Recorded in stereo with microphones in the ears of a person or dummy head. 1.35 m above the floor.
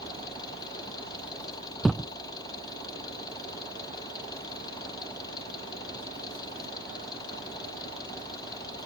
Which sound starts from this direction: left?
An engine running, at 0.0 s.